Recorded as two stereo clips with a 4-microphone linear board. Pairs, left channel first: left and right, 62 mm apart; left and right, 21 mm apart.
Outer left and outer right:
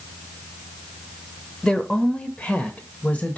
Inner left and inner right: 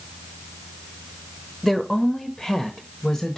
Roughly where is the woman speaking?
Centre.